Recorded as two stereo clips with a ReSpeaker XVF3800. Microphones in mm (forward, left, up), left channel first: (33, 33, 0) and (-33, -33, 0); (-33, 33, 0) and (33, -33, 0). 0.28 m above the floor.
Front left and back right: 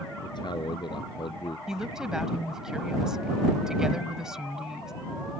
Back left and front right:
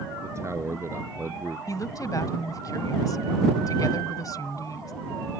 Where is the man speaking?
10° left; by 1.6 s 20° left.